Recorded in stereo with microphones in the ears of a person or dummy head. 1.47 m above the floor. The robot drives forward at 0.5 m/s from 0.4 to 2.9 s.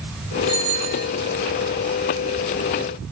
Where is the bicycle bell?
35° right (ahead or behind), 5 m.